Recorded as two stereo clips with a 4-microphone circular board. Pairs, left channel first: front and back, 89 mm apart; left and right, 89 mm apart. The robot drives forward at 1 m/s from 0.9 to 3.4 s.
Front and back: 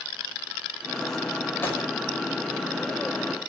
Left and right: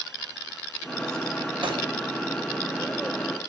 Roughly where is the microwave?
Ahead right.